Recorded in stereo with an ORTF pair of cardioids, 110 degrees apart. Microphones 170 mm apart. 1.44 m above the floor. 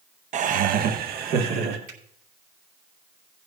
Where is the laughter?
45° right, 0.9 m; by 1.8 s 70° right, 2 m.